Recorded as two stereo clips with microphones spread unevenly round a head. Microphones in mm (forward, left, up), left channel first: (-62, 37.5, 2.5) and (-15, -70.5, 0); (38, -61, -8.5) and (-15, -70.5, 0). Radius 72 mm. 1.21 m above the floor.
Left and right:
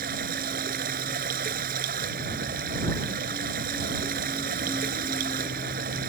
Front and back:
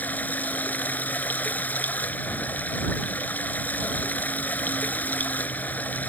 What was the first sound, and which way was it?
Running water, 50° right.